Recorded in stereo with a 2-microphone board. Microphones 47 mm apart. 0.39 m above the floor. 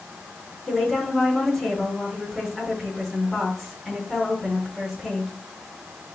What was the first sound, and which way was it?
A woman speaking, centre (ahead or behind).